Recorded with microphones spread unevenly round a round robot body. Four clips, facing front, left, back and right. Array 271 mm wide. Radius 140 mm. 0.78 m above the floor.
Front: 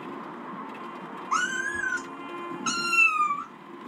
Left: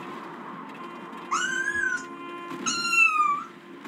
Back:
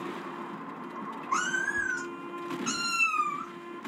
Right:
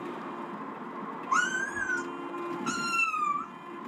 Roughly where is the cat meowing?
Ahead.